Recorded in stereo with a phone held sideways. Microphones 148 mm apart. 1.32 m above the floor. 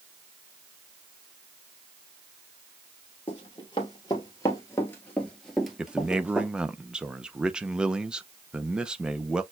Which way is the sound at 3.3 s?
35° left (ahead or behind).